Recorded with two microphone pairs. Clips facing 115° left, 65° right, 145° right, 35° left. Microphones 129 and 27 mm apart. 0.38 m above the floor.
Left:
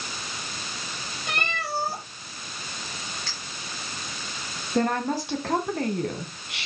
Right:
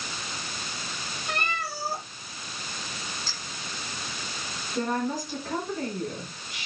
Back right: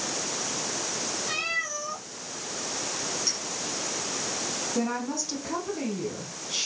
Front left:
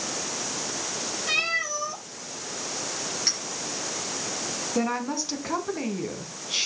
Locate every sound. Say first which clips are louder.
1.3 s a cat meowing: left 1 dB, front left 5 dB; 90° left, 7 m
3.3 s a clink: left 1 dB, front left 5 dB; 90° left, 5.5 m
4.8 s a woman speaking: left 4 dB, front left 3 dB; 105° left, 3 m